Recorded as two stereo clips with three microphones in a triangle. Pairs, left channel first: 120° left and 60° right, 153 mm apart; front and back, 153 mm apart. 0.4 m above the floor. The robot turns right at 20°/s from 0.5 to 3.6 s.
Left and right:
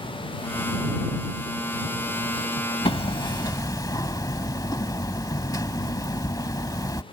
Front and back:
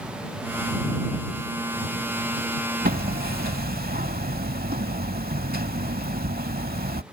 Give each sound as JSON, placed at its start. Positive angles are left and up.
{"t": 2.9, "sound": "hammering", "azimuth_deg": 170}